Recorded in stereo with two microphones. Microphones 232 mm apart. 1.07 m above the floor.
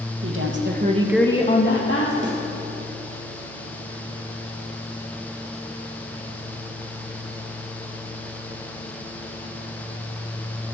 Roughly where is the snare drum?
Right.